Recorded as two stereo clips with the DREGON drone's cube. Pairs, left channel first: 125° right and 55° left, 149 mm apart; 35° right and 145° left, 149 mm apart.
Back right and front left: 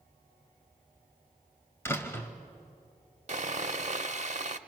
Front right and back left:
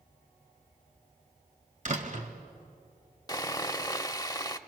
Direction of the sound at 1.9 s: 165° left.